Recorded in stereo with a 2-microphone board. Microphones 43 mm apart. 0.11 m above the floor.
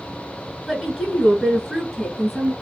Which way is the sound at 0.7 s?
10° right (ahead or behind).